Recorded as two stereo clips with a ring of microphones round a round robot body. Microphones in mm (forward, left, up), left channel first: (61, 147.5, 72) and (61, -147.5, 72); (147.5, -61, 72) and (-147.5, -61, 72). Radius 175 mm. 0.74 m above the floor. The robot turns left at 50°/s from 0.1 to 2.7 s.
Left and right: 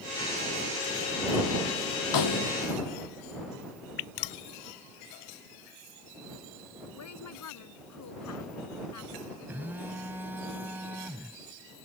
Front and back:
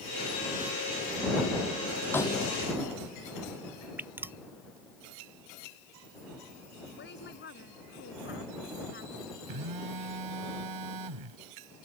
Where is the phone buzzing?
175° right.